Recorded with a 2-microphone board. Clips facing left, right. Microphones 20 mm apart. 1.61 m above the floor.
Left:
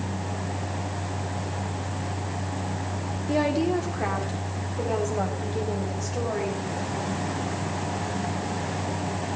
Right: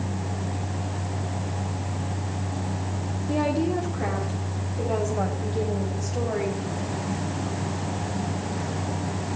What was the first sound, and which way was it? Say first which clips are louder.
A woman speaking: left 1 dB; 50° left (ahead or behind).